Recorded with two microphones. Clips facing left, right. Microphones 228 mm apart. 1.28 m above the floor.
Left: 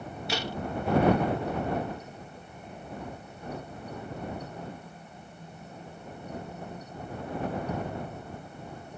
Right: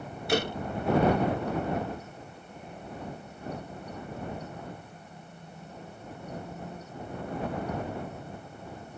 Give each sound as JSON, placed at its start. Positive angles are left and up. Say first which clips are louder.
{"t": 0.3, "sound": "a door slam", "louder": "right 7 dB", "side_deg": -55}